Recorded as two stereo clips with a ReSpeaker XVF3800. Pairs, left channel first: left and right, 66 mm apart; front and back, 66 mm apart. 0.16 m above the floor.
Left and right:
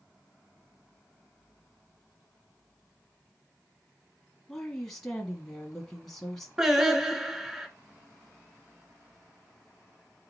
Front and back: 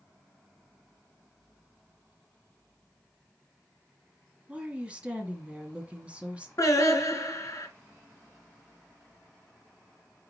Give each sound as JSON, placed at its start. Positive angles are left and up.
{"t": 4.5, "sound": "a woman speaking", "azimuth_deg": 165, "distance_m": 1.3}
{"t": 6.6, "sound": "singing", "azimuth_deg": -10, "distance_m": 1.5}